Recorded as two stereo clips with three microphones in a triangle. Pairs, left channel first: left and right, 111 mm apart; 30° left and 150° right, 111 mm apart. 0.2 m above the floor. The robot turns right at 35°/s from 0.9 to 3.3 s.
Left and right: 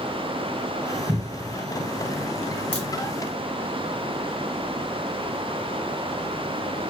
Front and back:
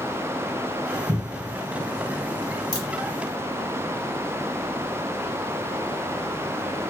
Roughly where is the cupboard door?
Right.